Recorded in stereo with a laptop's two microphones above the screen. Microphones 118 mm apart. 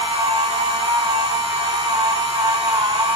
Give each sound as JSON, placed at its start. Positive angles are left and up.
{"t": 0.0, "sound": "a machine running", "side_deg": -50, "distance_m": 1.4}